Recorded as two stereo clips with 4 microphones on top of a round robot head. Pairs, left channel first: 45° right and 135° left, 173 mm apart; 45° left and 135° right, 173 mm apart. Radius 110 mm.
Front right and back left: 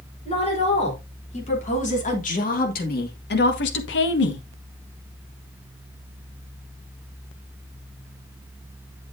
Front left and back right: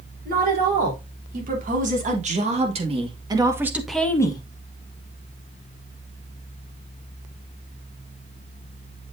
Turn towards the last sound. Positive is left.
turn(degrees=-20)